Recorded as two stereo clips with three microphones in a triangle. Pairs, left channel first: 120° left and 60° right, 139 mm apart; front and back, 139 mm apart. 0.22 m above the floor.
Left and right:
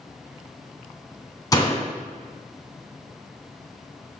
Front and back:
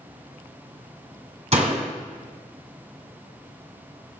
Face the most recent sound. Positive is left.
turn(degrees=175)